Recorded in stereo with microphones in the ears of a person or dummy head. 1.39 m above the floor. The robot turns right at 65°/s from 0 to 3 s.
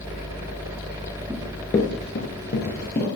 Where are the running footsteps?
10° right (ahead or behind), 1.4 m; by 3.2 s 15° left (ahead or behind), 2 m.